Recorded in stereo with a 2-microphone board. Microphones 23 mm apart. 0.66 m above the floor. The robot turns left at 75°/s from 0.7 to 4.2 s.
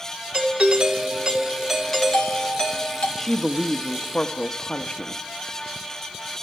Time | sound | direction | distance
0.3 | a doorbell | 105° right | 2.5 m
3.2 | a woman speaking | 150° left | 0.8 m